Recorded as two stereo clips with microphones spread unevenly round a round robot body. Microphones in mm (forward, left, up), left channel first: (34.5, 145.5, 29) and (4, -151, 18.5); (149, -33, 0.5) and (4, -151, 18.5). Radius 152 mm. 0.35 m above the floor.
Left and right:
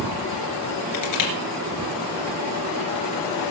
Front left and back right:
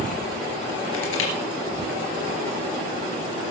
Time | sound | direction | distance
0.9 | crushing | 65° left | 3 m